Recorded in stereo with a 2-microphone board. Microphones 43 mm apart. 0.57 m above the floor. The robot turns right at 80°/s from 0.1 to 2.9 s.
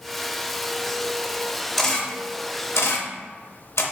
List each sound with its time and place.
1.8 s a camera shutter: 5° left (ahead or behind), 0.7 m; by 3.8 s 85° left, 0.7 m